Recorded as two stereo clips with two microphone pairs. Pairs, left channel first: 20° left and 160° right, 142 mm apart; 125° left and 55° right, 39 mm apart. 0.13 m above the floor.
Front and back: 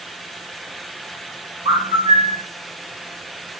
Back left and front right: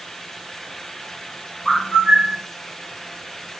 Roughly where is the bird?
Behind.